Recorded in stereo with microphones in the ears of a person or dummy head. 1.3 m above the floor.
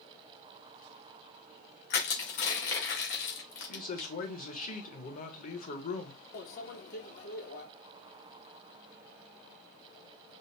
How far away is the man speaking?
About 0.9 m.